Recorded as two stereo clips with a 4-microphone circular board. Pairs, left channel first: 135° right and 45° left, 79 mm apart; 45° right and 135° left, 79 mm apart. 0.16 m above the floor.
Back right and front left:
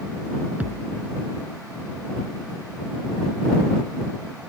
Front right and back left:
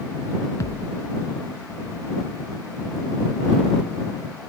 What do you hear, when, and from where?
0.6 s a thud: 20° right